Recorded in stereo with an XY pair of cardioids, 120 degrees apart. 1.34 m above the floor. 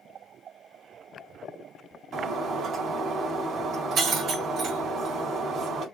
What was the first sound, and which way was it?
Breaking glass, 55° right.